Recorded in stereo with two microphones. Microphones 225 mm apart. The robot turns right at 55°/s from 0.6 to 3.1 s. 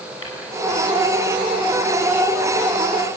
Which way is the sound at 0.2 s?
75° left (ahead or behind).